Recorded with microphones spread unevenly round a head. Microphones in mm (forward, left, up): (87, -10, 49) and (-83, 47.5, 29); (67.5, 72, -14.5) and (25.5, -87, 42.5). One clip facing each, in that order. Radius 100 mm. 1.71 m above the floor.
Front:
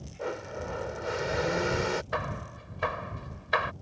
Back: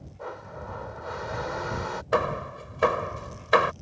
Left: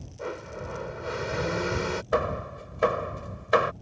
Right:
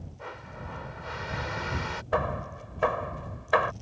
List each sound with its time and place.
0.2 s a blender: 40° left
2.1 s hammering: 130° left